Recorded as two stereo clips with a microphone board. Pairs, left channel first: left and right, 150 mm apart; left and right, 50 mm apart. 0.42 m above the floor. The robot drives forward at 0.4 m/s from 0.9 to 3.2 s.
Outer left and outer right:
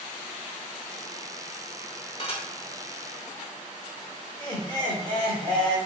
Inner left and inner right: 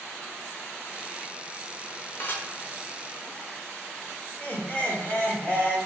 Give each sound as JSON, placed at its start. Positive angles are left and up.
{"t": 2.2, "sound": "dishes clattering", "side_deg": 40, "distance_m": 0.7}
{"t": 4.4, "sound": "laughter", "side_deg": 30, "distance_m": 1.1}